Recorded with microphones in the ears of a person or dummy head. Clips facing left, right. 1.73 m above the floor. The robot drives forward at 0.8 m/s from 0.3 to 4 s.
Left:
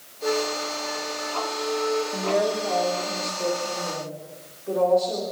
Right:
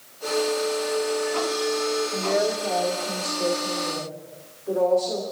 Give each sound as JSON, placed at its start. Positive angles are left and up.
{"t": 0.2, "sound": "a flute", "side_deg": 75, "distance_m": 8.5}
{"t": 2.1, "sound": "a woman speaking", "side_deg": -5, "distance_m": 1.5}